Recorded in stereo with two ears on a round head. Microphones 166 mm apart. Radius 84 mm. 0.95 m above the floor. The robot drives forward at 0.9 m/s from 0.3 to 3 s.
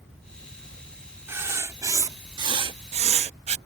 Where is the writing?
15° right (ahead or behind); by 3.6 s 35° right (ahead or behind).